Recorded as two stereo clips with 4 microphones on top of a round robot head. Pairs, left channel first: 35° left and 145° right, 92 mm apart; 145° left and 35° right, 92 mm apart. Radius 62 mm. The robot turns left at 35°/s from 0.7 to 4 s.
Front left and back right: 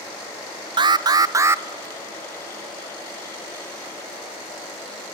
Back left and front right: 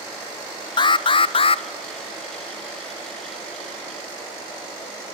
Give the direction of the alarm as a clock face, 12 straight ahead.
6 o'clock.